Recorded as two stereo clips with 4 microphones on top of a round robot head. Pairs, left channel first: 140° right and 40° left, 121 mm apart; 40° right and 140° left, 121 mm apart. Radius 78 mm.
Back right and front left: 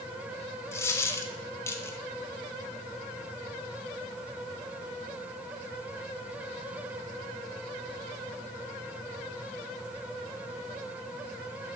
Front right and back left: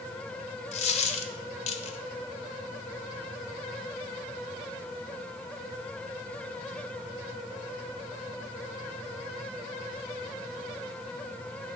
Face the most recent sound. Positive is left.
turn(degrees=-75)